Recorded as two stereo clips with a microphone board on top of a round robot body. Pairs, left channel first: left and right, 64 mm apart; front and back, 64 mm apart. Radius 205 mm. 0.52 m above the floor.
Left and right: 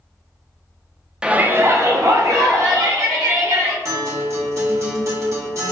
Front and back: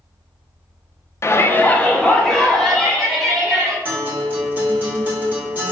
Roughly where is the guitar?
Behind right.